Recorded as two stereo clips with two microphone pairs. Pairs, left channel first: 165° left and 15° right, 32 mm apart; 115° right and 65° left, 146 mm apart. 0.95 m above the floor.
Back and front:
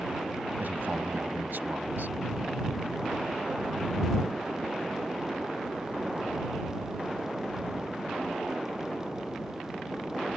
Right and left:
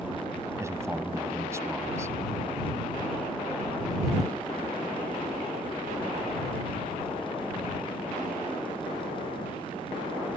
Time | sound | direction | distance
0.6 | a man speaking | 5° right | ?